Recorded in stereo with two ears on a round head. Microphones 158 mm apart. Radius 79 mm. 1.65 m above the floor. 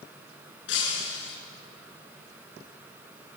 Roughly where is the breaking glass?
Left.